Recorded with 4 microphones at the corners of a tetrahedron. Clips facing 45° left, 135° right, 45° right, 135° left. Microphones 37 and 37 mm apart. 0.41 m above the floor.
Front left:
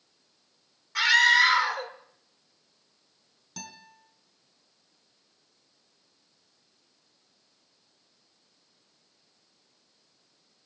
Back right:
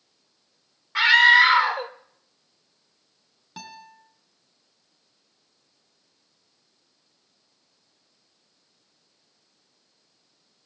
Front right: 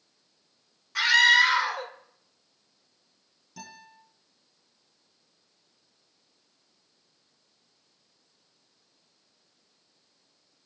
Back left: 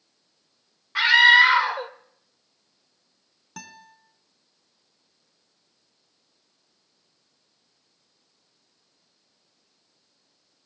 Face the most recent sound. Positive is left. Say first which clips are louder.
# back right 4 dB, back left 3 dB
turn(degrees=160)